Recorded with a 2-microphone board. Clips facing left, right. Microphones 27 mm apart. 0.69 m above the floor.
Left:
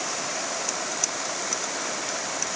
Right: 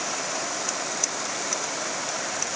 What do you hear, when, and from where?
Only background noise.